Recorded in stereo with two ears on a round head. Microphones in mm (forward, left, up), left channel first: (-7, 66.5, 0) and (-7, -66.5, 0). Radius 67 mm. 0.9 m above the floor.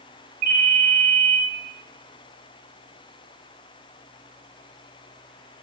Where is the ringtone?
65° right (ahead or behind), 1.5 m.